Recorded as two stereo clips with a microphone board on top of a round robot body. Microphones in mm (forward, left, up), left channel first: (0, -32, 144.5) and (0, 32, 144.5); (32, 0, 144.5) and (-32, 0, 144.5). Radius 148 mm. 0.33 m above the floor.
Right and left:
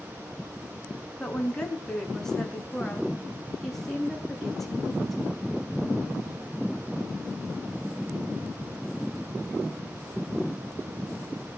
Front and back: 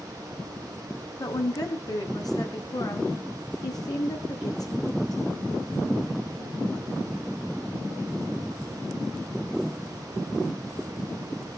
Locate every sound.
1.2 s a woman speaking: 15° right, 4 m; by 5.2 s straight ahead, 7.5 m